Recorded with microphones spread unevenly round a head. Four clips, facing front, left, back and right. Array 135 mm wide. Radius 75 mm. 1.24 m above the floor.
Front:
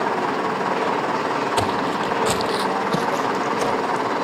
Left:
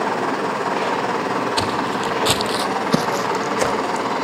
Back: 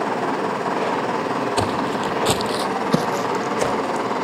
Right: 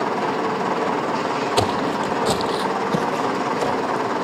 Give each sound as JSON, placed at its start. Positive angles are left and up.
{"t": 1.6, "sound": "footsteps", "azimuth_deg": -50, "distance_m": 1.5}